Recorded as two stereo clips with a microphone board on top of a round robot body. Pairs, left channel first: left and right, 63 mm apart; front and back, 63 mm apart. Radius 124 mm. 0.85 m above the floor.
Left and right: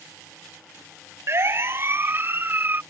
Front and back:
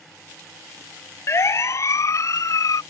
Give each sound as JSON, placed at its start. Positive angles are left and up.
{"t": 1.3, "sound": "a siren", "azimuth_deg": -45}